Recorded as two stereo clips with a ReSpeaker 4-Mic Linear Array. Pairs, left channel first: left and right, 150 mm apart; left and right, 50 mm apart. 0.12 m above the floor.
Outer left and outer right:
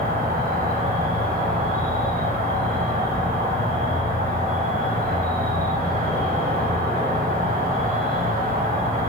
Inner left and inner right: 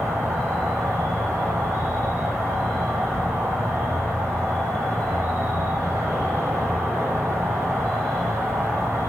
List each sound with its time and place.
0.0 s an insect: 75° right (ahead or behind), 1.2 m